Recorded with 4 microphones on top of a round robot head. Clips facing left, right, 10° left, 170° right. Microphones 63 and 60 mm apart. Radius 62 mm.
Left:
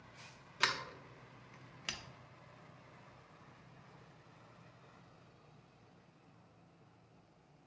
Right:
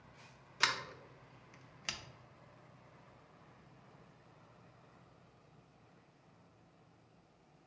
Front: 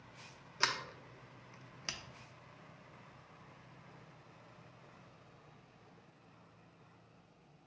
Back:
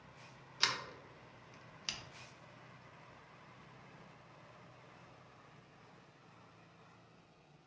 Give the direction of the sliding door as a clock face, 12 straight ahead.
12 o'clock.